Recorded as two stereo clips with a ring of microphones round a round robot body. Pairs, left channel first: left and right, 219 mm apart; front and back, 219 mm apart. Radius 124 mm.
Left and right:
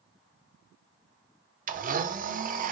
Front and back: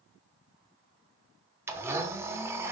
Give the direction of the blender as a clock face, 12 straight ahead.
4 o'clock.